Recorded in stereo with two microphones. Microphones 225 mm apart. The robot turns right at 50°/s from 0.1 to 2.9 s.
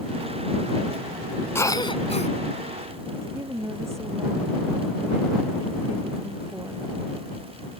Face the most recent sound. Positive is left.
turn(degrees=-10)  # may be behind; listen again after turning